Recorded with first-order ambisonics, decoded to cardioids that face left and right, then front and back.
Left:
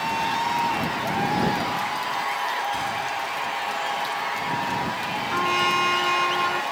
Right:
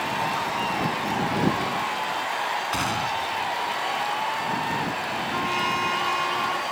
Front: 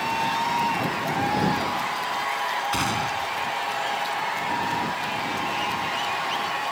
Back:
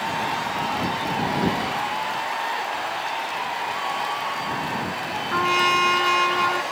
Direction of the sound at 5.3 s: 160° left.